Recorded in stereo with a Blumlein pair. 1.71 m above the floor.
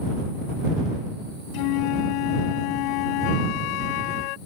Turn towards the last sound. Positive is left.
turn(degrees=45)